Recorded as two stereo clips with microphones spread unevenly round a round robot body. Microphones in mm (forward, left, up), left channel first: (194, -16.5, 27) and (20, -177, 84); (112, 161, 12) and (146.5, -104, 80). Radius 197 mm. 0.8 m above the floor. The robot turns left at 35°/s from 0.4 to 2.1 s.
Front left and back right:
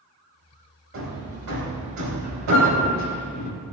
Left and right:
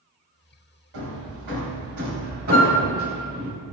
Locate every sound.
0.9 s hammering: 105° right, 2.5 m; by 3.5 s 150° right, 2.5 m
2.5 s a flute: 120° left, 2.5 m